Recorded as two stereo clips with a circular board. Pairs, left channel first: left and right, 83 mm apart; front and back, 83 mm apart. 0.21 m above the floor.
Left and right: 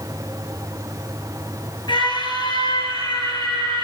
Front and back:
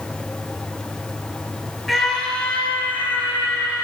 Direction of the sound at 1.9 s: 90° left.